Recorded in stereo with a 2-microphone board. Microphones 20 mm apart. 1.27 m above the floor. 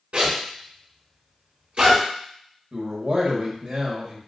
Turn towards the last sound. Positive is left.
turn(degrees=-50)  # may be behind; listen again after turning